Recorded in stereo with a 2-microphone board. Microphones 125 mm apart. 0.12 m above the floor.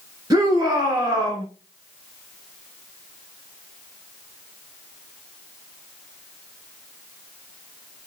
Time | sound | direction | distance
0.3 | a shout | 30° right (ahead or behind) | 1.5 m